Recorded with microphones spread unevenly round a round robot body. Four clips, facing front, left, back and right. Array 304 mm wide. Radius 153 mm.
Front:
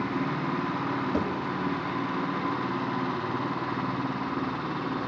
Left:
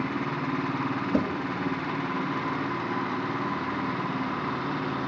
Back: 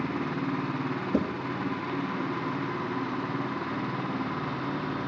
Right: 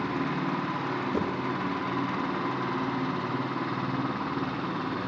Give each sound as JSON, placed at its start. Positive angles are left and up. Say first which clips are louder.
{"t": 1.1, "sound": "a thud", "louder": "left 5 dB, back 3 dB", "azimuth_deg": 170, "distance_m": 6.5}